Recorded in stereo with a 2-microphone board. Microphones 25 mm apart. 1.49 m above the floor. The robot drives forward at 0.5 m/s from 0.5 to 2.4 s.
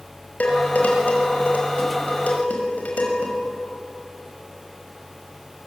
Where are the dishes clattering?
85° left, 6 m.